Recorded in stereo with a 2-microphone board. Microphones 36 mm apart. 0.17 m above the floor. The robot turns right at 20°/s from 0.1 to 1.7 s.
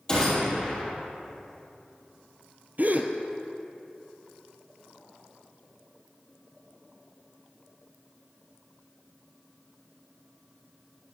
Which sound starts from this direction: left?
A gunshot, at 0.1 s.